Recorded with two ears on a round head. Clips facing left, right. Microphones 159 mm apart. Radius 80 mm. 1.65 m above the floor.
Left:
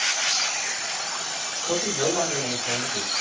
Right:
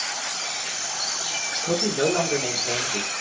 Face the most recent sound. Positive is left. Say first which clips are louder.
# right 3 dB
turn(degrees=-50)  # may be behind; listen again after turning